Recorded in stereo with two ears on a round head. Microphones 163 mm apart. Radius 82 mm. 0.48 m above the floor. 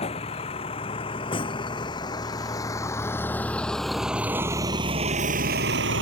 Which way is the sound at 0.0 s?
30° left (ahead or behind).